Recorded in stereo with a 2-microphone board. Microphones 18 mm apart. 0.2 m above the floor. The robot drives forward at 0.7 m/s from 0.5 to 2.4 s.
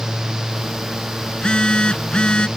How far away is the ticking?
No ticking in this recording.